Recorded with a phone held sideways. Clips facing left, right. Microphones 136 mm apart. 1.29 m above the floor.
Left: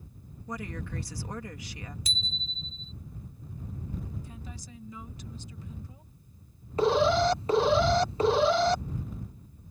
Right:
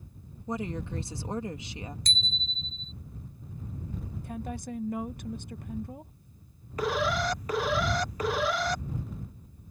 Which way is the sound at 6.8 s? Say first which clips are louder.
Left 6 dB; 25° left (ahead or behind).